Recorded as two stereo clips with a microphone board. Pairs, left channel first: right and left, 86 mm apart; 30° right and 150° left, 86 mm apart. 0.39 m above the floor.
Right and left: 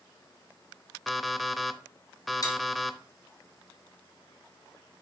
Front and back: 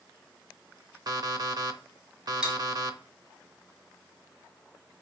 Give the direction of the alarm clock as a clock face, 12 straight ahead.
6 o'clock.